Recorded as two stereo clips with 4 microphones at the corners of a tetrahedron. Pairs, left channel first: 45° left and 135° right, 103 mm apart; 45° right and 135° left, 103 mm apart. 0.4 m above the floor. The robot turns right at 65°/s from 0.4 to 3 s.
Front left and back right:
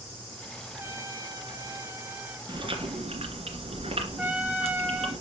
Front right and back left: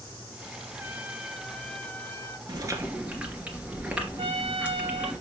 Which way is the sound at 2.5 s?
Straight behind.